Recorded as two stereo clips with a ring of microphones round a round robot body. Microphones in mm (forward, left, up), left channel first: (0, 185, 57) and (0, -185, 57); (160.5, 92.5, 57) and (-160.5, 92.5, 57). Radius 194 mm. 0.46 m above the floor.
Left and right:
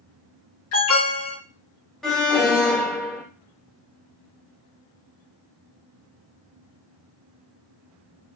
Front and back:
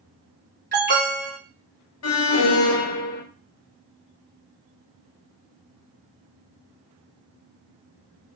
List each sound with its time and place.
0.7 s an alarm: 130° left, 2 m
2.0 s an alarm: straight ahead, 0.8 m